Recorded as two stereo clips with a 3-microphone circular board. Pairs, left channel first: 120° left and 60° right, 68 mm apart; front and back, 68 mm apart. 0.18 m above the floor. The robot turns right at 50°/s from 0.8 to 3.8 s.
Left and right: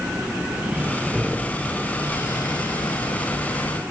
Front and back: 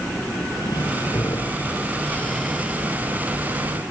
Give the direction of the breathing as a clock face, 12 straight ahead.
12 o'clock.